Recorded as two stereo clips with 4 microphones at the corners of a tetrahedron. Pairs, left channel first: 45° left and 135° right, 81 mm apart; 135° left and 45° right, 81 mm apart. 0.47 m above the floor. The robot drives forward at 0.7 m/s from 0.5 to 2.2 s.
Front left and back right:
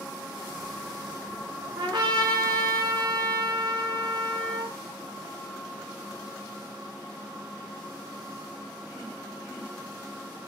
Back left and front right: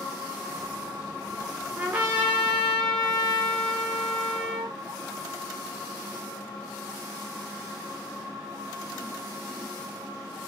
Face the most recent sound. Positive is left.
turn(degrees=-120)